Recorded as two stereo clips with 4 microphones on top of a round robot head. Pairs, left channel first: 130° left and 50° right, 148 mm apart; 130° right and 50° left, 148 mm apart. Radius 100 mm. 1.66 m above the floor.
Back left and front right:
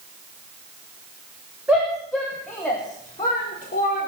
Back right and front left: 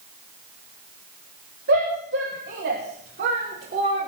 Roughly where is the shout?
Ahead left.